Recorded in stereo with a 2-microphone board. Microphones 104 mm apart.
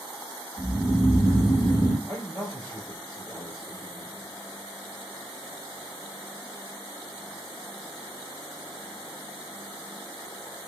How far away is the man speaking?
About 2 m.